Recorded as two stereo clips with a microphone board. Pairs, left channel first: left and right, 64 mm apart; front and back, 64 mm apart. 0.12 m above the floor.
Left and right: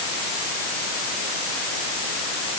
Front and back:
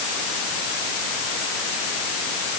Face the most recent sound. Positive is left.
No sound to turn to.